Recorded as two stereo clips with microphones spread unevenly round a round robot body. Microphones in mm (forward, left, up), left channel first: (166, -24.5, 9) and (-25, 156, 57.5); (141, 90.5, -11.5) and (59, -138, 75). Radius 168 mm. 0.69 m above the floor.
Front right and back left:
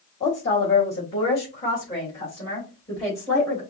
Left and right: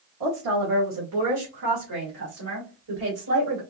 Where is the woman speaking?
105° right, 1.9 m; by 3.6 s 125° right, 3.5 m.